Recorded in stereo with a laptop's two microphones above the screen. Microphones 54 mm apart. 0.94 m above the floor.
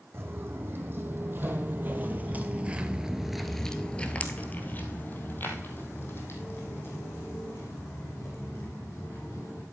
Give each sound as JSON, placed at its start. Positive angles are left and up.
{"t": 0.1, "sound": "footsteps", "side_deg": -45, "distance_m": 2.5}